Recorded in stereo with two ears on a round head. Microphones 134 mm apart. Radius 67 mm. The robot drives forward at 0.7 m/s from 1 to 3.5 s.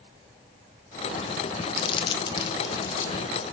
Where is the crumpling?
35° left (ahead or behind), 0.7 m; by 3.2 s 15° left (ahead or behind), 1.4 m.